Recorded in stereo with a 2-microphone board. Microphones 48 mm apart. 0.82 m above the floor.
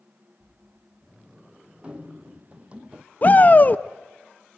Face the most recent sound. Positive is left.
turn(degrees=35)  # may be behind; listen again after turning